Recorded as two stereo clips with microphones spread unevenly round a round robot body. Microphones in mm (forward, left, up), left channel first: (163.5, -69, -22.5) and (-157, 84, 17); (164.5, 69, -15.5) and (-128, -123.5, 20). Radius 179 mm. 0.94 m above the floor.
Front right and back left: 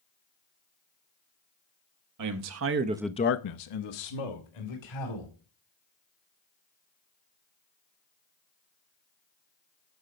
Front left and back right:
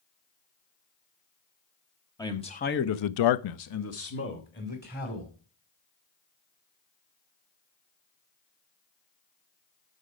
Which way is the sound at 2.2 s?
115° left.